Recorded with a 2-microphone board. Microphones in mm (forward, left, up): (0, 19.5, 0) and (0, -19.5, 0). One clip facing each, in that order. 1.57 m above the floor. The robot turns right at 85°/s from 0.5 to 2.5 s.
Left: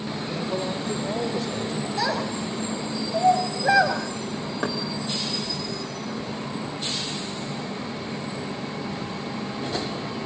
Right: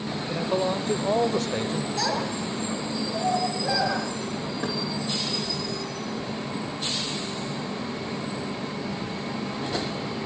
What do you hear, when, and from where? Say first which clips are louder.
0.3 s a man speaking: right 4 dB; 145° right, 0.9 m; by 1.9 s 30° right, 0.9 m
2.0 s a child speaking: left 3 dB; 15° left (ahead or behind), 6 m; by 4.0 s 60° left (ahead or behind), 6 m
4.6 s knocking: left 4 dB; 65° left (ahead or behind), 3.5 m